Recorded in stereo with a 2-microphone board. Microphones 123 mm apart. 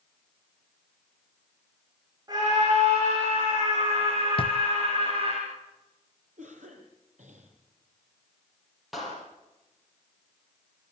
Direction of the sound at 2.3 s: 30° right (ahead or behind).